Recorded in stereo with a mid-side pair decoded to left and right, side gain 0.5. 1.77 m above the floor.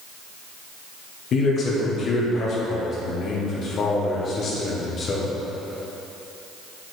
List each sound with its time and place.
1.3 s a man speaking: 50° left, 1.7 m